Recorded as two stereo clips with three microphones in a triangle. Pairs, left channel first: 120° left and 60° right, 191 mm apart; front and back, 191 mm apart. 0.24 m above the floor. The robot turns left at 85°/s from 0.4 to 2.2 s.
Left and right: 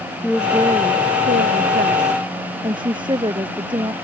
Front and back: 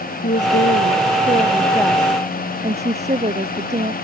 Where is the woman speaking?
25° left; by 3.9 s 125° right.